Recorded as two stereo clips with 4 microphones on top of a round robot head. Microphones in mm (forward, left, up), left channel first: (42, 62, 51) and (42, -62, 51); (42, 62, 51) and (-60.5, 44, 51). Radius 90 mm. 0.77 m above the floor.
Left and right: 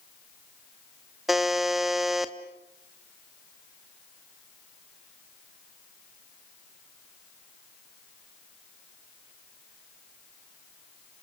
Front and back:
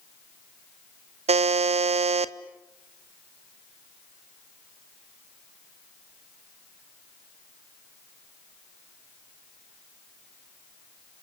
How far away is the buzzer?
About 0.9 m.